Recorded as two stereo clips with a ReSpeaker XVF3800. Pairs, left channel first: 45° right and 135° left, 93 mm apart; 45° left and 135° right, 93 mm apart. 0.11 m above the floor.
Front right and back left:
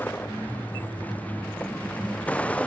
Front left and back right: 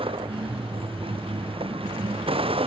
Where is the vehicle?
115° right; by 2.7 s 120° right.